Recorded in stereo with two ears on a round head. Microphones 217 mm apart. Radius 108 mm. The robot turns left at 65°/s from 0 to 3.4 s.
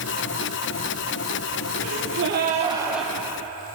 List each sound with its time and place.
1.8 s a gasp: 100° right, 5.5 m; by 3.1 s 175° left, 5.5 m